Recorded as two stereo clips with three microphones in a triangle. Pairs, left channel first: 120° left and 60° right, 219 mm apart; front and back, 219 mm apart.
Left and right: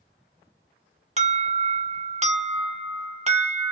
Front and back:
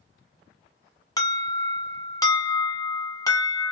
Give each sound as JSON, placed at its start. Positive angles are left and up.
{"t": 1.2, "sound": "an alarm", "azimuth_deg": -55, "distance_m": 0.8}